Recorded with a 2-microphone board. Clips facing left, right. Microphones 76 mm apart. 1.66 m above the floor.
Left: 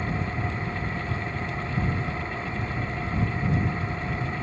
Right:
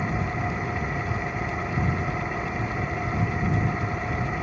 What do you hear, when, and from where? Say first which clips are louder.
0.0 s an engine running: right 2 dB; 15° right (ahead or behind)